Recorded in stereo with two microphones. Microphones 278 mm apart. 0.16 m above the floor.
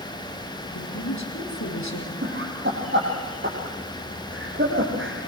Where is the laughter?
40° right (ahead or behind), 5 m.